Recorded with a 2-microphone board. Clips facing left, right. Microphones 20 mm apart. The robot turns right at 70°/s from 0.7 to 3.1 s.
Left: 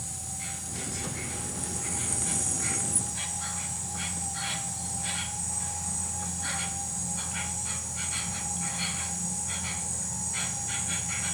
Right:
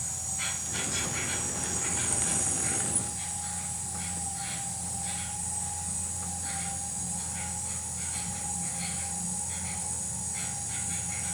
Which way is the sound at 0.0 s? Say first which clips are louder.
Right 4 dB; 120° right.